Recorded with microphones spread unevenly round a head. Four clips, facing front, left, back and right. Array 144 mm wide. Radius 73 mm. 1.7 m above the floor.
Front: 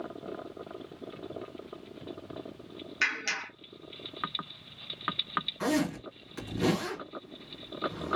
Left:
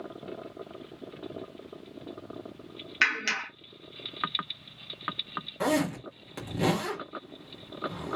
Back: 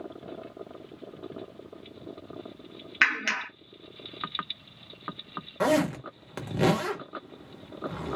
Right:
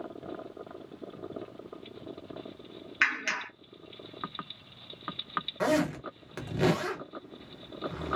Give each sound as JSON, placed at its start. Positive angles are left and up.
{"t": 3.0, "sound": "a clap", "azimuth_deg": 170, "distance_m": 1.3}
{"t": 5.6, "sound": "a zipper", "azimuth_deg": -175, "distance_m": 1.3}